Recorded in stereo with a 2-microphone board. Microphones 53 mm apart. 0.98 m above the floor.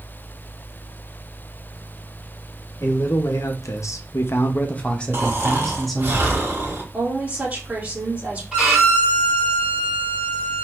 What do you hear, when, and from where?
2.8 s a man speaking: 65° left (ahead or behind), 1.0 m; by 6.1 s centre (ahead or behind), 1.4 m
5.1 s snoring: 40° right (ahead or behind), 1.4 m
6.9 s a woman speaking: 25° right (ahead or behind), 1.8 m
8.5 s a violin: 5° right (ahead or behind), 2.5 m